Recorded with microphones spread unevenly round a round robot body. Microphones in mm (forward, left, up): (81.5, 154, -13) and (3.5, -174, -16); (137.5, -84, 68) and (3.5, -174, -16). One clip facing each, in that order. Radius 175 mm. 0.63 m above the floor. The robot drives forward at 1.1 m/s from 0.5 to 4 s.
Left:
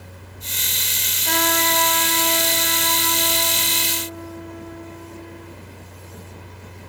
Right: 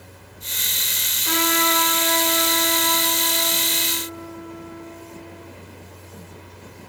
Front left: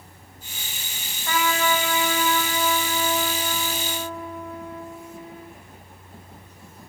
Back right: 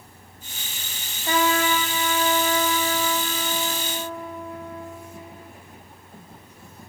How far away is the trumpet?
About 1.5 m.